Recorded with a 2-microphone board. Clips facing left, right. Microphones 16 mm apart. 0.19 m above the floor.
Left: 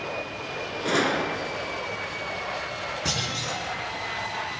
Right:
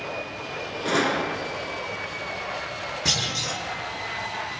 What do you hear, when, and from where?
0.8 s a gunshot: centre (ahead or behind), 0.7 m
3.0 s a clunk: 15° right (ahead or behind), 4 m